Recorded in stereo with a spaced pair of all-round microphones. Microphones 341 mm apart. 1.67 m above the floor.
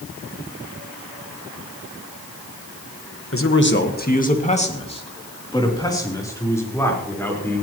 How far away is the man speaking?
About 1.4 m.